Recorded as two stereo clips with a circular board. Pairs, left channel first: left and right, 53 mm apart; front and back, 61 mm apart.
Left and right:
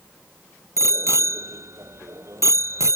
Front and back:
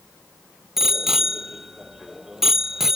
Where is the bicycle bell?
95° right.